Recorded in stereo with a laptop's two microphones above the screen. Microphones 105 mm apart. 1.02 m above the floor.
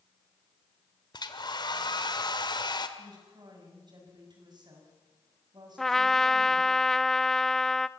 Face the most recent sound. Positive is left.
turn(degrees=5)  # may be behind; listen again after turning